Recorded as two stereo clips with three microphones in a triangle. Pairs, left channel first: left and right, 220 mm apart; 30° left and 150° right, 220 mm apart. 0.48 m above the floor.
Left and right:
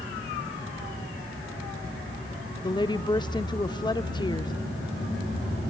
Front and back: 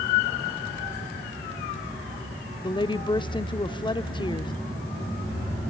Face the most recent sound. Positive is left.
turn(degrees=55)